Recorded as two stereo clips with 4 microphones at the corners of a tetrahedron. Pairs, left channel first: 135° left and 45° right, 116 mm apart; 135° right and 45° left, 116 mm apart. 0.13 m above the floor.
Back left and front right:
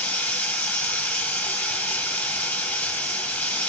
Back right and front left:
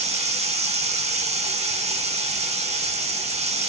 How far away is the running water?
About 0.9 m.